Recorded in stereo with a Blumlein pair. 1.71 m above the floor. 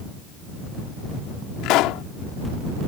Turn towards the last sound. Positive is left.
turn(degrees=40)